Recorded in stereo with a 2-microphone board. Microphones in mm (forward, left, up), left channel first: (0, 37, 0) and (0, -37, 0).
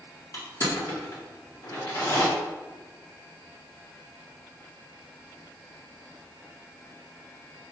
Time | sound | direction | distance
0.3 | crushing | 45° left (ahead or behind) | 1.5 m